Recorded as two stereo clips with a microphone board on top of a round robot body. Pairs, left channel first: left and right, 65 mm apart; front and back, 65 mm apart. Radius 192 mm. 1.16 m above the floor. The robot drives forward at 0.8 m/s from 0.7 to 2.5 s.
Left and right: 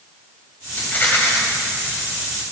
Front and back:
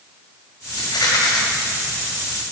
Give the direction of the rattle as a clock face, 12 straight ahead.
11 o'clock.